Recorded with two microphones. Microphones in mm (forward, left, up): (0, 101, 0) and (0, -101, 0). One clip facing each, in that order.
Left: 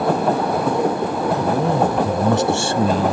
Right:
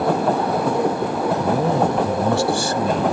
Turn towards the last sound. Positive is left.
turn(degrees=40)  # may be behind; listen again after turning